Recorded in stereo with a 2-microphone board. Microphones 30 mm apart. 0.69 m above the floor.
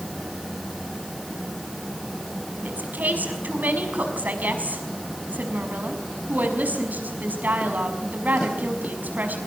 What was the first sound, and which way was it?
A woman speaking, 80° right.